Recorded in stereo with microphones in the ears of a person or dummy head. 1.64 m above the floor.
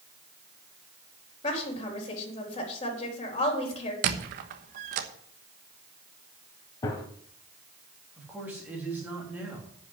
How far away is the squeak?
About 1.2 m.